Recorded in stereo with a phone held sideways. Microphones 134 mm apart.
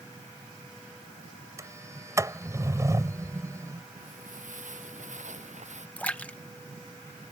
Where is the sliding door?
20° right (ahead or behind).